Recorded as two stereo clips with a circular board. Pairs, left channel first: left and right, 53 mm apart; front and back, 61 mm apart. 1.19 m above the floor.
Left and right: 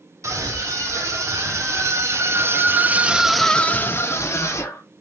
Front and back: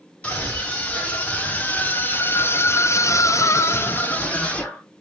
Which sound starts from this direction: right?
A scream, at 0.2 s.